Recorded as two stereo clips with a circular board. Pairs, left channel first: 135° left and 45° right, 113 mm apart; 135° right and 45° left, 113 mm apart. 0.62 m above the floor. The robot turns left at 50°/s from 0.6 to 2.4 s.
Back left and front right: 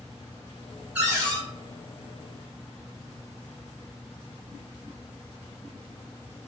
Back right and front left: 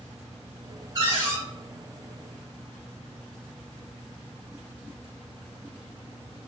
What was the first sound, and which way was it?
A cupboard door, 15° left.